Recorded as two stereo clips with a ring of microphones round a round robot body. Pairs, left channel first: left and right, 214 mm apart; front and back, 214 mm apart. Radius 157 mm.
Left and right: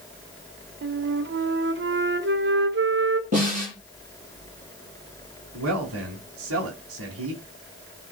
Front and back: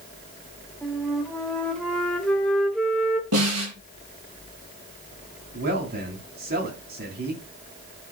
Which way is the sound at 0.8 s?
85° right.